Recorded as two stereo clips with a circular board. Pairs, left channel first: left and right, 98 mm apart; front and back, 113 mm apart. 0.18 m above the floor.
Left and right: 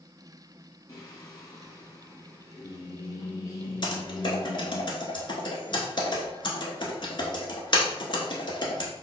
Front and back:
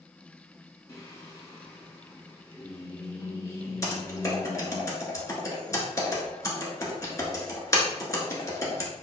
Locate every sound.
0.9 s singing: 55° left, 2 m
3.8 s typing on a keyboard: 60° left, 1.3 m